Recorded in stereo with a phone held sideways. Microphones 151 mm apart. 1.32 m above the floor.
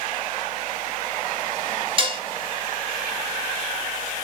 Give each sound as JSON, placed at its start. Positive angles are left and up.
{"t": 2.0, "sound": "dishes clattering", "side_deg": -35, "distance_m": 0.7}